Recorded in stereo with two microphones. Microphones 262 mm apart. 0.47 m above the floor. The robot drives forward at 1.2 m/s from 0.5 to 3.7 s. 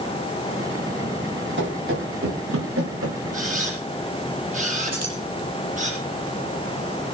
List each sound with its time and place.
1.6 s running footsteps: 50° right (ahead or behind), 4.5 m; by 3.2 s 70° right (ahead or behind), 5 m
3.3 s a camera shutter: 35° right (ahead or behind), 7 m; by 5.9 s 30° right (ahead or behind), 7 m
4.9 s keys jangling: 85° right, 8 m